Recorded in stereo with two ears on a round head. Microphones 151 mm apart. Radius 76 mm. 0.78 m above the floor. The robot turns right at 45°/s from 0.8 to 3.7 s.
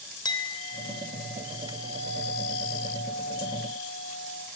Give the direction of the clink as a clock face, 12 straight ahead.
7 o'clock.